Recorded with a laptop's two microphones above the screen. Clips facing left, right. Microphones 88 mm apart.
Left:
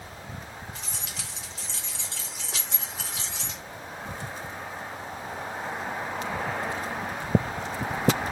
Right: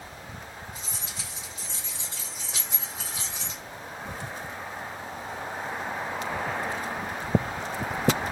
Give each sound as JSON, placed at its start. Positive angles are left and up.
{"t": 0.8, "sound": "keys jangling", "side_deg": 85, "distance_m": 1.6}